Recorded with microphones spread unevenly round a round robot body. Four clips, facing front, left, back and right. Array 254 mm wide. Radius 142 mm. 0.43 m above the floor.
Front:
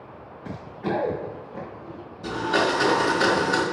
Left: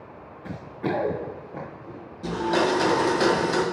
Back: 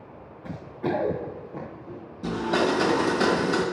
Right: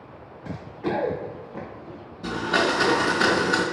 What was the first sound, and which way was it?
Running footsteps, 120° left.